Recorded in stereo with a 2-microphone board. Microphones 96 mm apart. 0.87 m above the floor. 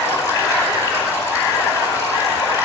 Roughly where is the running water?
Left.